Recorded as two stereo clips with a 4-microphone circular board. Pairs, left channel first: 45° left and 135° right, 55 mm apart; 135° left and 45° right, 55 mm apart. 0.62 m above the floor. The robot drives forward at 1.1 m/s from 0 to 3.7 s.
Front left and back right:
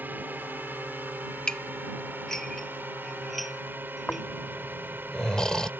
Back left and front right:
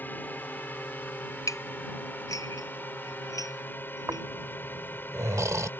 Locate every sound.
0.0 s a drone: straight behind
1.5 s dishes clattering: 120° left; by 4.2 s 135° left
4.1 s snoring: 30° right